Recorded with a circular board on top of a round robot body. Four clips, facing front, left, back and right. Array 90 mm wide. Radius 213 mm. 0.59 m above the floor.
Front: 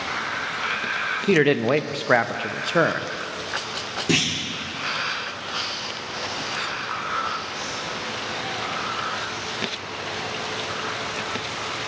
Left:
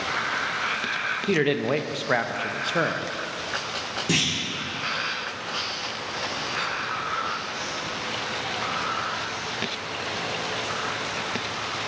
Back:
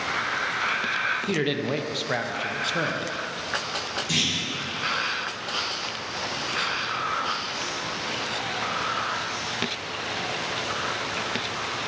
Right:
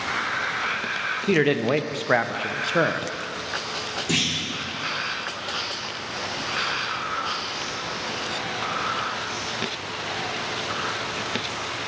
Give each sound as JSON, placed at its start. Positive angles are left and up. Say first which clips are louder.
{"t": 1.3, "sound": "a man speaking", "louder": "right 3 dB, front 11 dB", "azimuth_deg": -15, "distance_m": 0.6}
{"t": 4.1, "sound": "a clunk", "louder": "left 1 dB, front 6 dB", "azimuth_deg": 25, "distance_m": 2.5}